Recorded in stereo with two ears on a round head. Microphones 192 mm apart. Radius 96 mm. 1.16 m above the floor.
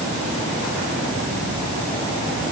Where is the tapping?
No tapping in this recording.